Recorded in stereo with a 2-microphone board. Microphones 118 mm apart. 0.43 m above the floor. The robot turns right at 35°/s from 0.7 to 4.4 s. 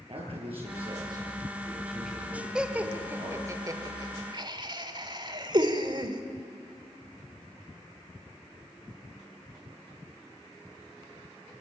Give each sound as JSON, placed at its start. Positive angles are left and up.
{"t": 0.1, "sound": "a man speaking", "azimuth_deg": -55, "distance_m": 8.0}
{"t": 2.5, "sound": "laughter", "side_deg": -5, "distance_m": 1.8}